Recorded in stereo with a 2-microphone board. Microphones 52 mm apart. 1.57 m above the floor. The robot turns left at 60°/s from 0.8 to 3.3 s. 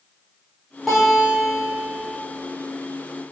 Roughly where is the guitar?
Ahead.